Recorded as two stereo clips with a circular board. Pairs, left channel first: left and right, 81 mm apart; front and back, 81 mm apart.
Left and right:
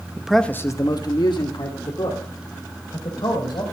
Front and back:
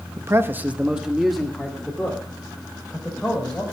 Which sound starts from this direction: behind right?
A man speaking, at 0.2 s.